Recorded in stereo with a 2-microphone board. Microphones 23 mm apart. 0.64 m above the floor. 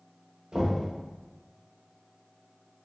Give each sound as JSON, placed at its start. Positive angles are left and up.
{"t": 0.5, "sound": "knocking", "side_deg": -55, "distance_m": 1.4}